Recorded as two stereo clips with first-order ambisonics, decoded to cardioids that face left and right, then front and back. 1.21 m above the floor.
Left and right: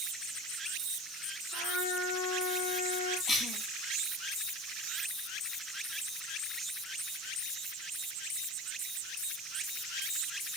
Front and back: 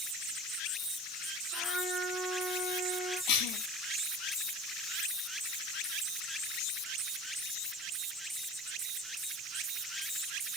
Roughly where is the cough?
Ahead.